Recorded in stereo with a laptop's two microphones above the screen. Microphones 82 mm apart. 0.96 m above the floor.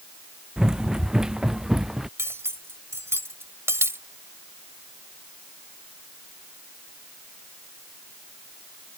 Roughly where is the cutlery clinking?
Right.